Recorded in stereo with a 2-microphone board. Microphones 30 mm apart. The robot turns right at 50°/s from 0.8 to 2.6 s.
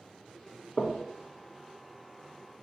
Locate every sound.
0.8 s knocking: 30° left (ahead or behind), 0.6 m; by 1.0 s 20° left (ahead or behind), 0.6 m